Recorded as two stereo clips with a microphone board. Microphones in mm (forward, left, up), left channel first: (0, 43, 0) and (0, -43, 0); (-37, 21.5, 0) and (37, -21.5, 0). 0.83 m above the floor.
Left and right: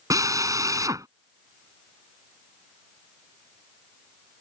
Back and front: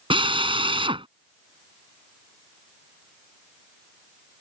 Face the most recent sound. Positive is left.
turn(degrees=-40)